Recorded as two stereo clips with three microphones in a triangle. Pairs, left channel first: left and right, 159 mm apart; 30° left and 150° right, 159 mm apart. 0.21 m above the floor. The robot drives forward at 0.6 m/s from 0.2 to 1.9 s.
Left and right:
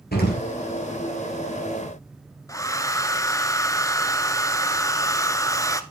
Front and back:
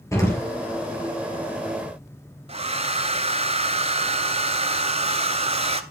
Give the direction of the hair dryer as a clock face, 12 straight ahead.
7 o'clock.